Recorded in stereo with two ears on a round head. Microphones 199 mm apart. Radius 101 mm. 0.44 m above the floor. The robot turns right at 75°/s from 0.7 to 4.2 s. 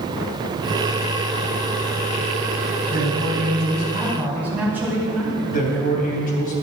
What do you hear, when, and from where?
2.9 s a man speaking: 105° right, 4 m; by 6.0 s 10° right, 4 m
5.5 s a man speaking: 40° left (ahead or behind), 3.5 m